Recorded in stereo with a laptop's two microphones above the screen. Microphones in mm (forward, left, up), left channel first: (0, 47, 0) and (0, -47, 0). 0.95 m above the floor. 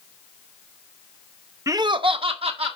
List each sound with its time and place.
1.7 s laughter: 35° right (ahead or behind), 0.8 m; by 2.8 s 80° right, 1.7 m